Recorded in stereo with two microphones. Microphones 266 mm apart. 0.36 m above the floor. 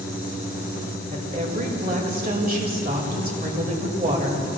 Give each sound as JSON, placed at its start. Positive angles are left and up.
{"t": 1.1, "sound": "a woman speaking", "side_deg": -35, "distance_m": 1.8}